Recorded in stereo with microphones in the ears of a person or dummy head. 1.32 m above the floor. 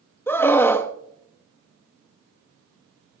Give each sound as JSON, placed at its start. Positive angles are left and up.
{"t": 0.3, "sound": "a scream", "side_deg": 10, "distance_m": 0.8}